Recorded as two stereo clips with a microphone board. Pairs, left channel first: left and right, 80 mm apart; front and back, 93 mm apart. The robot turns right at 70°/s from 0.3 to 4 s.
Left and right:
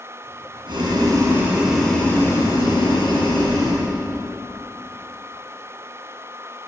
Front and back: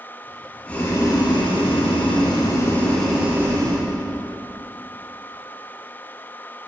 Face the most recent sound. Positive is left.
turn(degrees=155)